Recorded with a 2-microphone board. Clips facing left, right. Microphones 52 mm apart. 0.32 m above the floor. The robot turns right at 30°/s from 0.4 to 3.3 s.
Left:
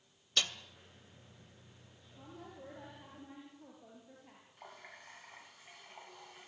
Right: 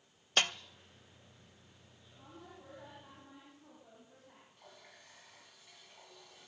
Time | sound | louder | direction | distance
0.4 | a snare drum | right 4 dB | 45° right (ahead or behind) | 0.5 m
2.2 | a woman speaking | left 3 dB | 50° left | 7.5 m
4.6 | a running tap | left 8 dB | 40° left (ahead or behind) | 1.7 m